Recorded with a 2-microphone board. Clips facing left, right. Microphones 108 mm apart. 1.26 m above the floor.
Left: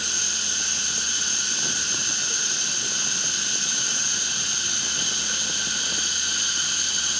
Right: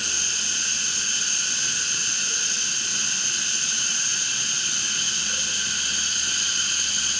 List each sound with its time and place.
0.0 s running water: 15° left (ahead or behind), 5 m